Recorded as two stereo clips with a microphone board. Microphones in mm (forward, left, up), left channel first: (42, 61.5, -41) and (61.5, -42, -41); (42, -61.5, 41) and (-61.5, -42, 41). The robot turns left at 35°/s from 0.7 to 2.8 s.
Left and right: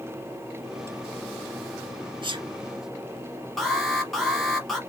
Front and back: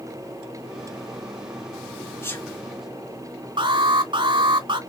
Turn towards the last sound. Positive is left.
turn(degrees=-170)